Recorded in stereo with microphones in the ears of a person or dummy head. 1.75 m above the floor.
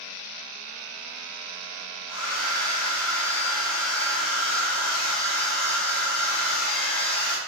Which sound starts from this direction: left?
A hair dryer, at 2.1 s.